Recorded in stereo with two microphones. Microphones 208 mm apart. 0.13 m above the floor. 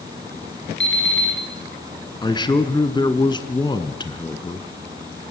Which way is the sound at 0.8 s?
70° left (ahead or behind).